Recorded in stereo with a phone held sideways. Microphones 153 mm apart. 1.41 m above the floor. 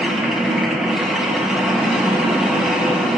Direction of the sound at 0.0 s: 5° right (ahead or behind).